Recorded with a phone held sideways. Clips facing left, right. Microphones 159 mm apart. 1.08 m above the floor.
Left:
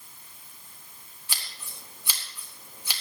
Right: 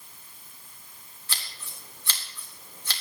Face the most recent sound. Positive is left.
turn(degrees=10)  # may be behind; listen again after turning